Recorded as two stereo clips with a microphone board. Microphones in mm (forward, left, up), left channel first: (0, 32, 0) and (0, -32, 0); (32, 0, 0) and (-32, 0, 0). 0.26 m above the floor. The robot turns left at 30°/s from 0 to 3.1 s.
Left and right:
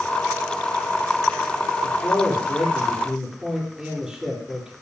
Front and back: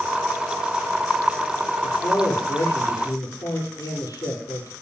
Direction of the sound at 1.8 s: 25° left.